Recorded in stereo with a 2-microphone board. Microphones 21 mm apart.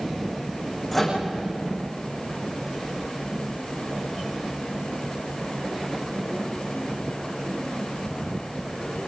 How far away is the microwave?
About 9.5 m.